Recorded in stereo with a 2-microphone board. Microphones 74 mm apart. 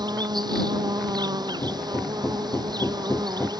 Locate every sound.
0.0 s an insect: 80° right
1.6 s hammering: 40° left (ahead or behind)